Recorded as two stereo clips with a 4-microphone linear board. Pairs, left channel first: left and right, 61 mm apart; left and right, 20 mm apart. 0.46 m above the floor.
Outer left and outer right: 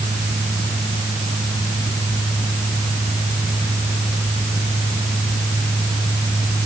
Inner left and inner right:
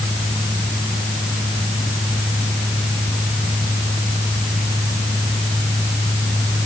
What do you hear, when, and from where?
Only background noise.